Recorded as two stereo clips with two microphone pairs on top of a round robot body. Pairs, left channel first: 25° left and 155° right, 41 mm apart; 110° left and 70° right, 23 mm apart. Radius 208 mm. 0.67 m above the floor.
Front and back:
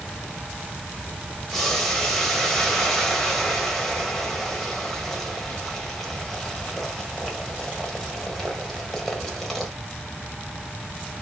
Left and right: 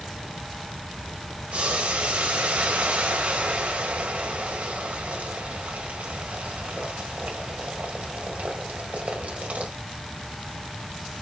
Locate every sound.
1.5 s boiling: 60° right, 1.5 m